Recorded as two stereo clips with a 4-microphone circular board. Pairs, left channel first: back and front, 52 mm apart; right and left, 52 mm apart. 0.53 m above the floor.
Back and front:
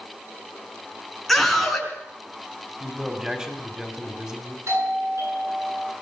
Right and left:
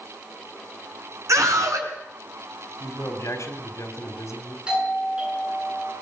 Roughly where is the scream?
Left.